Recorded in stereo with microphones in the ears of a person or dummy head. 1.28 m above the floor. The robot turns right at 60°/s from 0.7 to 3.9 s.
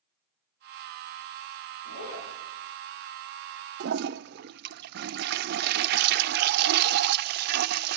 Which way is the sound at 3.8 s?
65° right (ahead or behind).